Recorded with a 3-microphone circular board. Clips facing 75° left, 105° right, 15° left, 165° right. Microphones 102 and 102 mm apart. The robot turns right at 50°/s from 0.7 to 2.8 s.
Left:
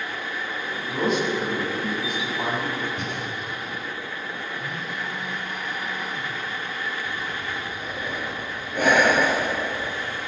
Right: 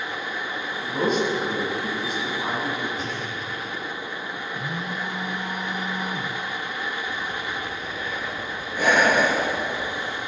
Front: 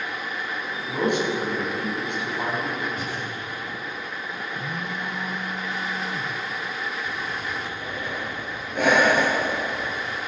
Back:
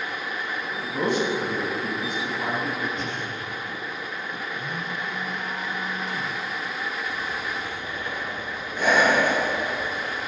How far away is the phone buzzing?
About 3.5 m.